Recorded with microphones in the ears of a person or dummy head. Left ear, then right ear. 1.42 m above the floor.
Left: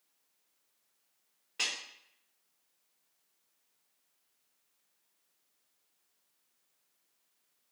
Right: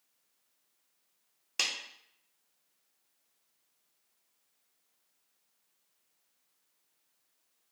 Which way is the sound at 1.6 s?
85° right.